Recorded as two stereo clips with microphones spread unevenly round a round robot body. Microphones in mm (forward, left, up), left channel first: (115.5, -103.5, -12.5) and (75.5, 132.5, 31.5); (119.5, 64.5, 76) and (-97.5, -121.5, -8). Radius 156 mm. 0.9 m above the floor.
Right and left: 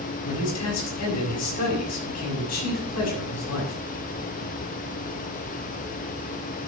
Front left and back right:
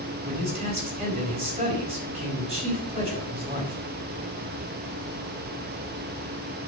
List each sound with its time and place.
0.2 s a man speaking: 70° right, 6.5 m